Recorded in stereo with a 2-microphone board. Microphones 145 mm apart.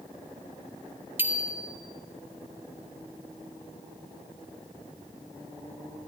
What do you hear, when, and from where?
1.2 s a bicycle bell: 15° right (ahead or behind), 2 m